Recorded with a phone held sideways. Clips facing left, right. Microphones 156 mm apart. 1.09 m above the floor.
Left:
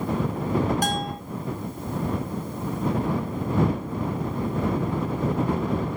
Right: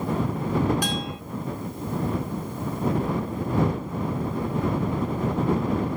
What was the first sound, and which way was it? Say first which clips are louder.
A bell: left 2 dB; 45° left (ahead or behind).